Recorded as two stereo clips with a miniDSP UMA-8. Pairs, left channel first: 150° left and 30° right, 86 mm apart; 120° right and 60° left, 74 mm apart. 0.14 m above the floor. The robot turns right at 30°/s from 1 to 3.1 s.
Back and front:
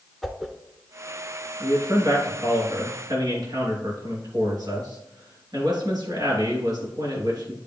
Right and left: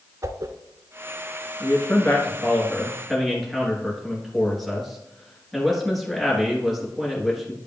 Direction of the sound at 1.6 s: 75° right.